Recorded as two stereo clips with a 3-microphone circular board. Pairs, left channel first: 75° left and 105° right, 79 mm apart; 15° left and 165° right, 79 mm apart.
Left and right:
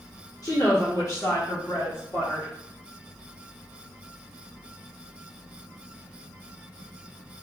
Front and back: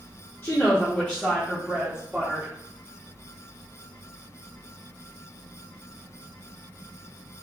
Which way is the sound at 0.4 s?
65° left.